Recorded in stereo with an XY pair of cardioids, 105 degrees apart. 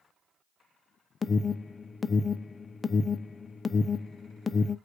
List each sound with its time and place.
1.2 s an alarm: 30° left, 0.6 m